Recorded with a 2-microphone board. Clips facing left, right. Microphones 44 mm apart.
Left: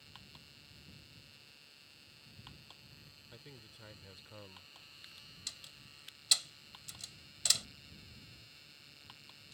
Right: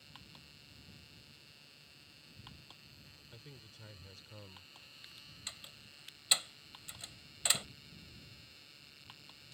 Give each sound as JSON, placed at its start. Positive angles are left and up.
{"t": 3.3, "sound": "a man speaking", "side_deg": 10}
{"t": 5.5, "sound": "a door slam", "side_deg": -25}